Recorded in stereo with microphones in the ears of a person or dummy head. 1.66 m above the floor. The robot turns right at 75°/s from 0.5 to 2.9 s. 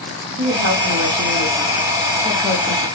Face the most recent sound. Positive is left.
turn(degrees=55)